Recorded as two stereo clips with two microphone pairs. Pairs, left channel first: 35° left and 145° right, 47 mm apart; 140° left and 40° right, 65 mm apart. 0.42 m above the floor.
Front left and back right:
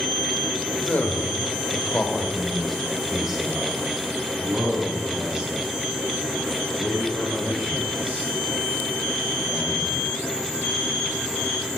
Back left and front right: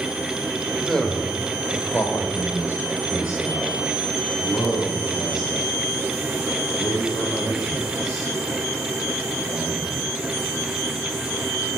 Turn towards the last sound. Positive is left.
turn(degrees=160)